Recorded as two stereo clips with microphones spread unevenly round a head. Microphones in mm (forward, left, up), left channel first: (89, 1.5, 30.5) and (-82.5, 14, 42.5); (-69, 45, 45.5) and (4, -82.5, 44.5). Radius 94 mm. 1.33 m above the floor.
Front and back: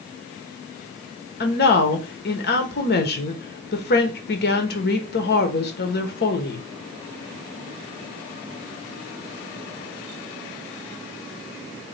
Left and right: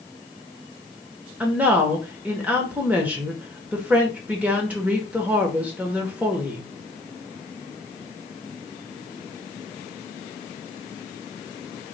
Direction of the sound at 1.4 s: 20° left.